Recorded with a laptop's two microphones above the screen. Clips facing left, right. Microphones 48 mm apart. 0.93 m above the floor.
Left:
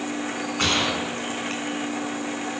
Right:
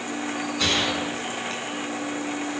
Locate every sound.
0.6 s a gunshot: 45° left (ahead or behind), 6.5 m